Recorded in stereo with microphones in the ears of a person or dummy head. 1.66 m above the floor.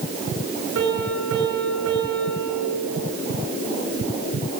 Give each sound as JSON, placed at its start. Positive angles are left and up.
{"t": 0.8, "sound": "a piano", "side_deg": -70, "distance_m": 5.5}